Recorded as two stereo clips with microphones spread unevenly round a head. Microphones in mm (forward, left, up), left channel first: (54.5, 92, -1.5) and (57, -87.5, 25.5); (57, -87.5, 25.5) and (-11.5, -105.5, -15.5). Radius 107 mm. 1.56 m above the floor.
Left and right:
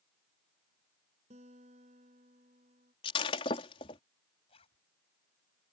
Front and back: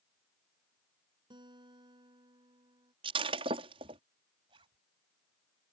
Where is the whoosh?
I don't hear a whoosh.